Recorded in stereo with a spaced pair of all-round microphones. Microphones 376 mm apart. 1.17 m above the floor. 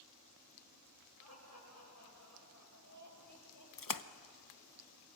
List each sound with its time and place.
1.2 s laughter: 40° left (ahead or behind), 7 m; by 3.7 s 55° left (ahead or behind), 7.5 m
3.8 s a splash: 55° left (ahead or behind), 0.7 m